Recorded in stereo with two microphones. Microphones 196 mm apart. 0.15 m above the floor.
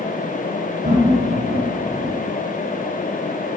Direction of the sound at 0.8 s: 45° right (ahead or behind).